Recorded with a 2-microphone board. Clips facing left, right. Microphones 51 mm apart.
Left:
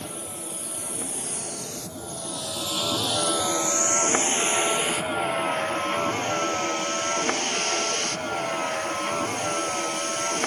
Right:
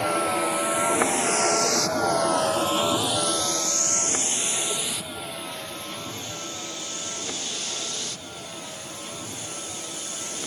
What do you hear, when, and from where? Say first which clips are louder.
0.0 s a vehicle: right 14 dB; 75° right (ahead or behind); by 10.5 s 55° left (ahead or behind)